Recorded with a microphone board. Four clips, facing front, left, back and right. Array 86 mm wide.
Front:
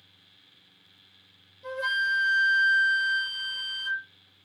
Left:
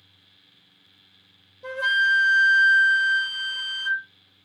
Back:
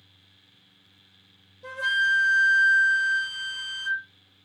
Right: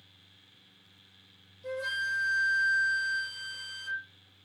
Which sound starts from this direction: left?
A flute, at 1.6 s.